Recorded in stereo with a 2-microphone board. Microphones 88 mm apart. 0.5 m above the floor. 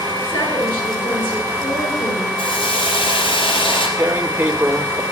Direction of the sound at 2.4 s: 75° left (ahead or behind).